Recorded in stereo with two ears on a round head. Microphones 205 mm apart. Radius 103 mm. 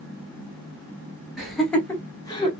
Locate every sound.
1.4 s laughter: centre (ahead or behind), 1.3 m; by 2.5 s 20° left (ahead or behind), 1.2 m